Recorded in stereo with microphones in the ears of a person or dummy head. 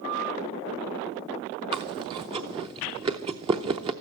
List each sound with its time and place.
1.7 s chewing: 25° right (ahead or behind), 0.7 m